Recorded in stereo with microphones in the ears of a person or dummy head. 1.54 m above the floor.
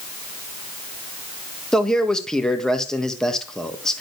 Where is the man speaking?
5° left (ahead or behind), 1.5 m.